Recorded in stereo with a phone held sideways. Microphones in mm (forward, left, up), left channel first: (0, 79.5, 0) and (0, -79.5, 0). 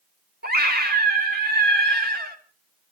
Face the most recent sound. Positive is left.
turn(degrees=-85)